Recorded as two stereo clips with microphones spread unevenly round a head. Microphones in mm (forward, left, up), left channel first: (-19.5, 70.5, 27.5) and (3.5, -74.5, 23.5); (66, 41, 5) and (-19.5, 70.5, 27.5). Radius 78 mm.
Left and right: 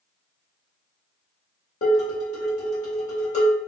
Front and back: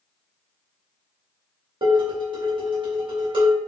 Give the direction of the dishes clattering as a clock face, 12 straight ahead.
7 o'clock.